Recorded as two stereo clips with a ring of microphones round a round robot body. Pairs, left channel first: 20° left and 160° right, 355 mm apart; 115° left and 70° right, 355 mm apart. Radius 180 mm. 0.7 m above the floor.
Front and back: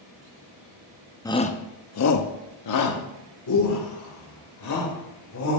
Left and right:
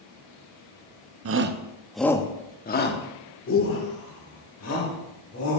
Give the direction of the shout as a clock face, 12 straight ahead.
2 o'clock.